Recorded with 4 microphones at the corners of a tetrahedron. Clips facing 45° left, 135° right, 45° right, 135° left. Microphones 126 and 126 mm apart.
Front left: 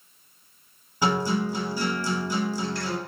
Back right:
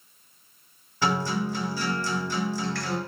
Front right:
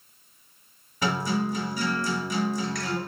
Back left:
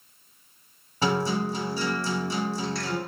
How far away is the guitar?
About 1.0 m.